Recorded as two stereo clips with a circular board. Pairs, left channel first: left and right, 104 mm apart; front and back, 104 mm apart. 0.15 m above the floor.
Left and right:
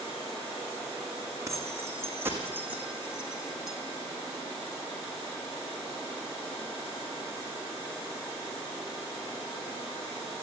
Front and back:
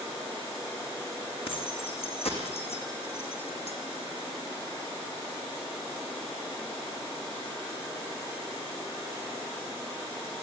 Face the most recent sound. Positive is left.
turn(degrees=0)